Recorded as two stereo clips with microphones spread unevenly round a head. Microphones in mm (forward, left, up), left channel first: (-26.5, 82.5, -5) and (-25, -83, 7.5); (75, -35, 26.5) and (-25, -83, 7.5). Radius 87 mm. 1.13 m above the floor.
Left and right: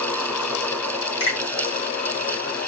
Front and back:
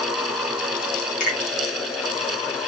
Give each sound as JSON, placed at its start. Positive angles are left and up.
{"t": 1.2, "sound": "a finger snap", "azimuth_deg": 30, "distance_m": 1.7}